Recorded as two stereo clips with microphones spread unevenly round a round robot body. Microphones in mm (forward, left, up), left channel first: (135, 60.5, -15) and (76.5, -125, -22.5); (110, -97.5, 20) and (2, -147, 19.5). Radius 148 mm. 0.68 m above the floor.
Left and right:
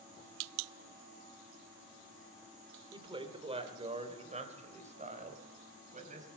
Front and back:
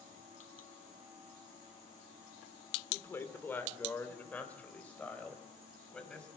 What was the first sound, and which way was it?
A woman speaking, 45° right.